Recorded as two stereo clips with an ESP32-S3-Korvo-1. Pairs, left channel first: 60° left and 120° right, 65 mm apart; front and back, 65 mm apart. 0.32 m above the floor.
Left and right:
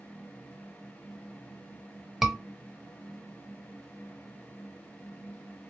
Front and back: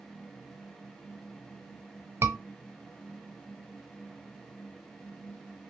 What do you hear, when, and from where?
2.2 s a scream: 155° left, 1.3 m